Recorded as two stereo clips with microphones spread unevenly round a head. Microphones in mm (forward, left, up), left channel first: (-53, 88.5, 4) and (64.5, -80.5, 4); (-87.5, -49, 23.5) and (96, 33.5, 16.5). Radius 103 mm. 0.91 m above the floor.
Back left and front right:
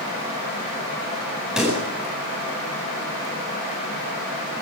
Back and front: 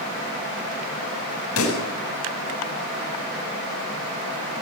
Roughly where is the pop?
Behind right.